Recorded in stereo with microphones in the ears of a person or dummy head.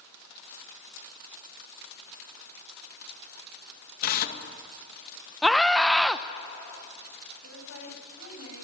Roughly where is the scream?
Centre.